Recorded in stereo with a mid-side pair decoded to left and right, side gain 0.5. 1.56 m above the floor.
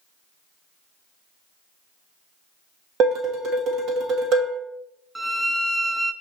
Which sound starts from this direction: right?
Dishes clattering, at 3.0 s.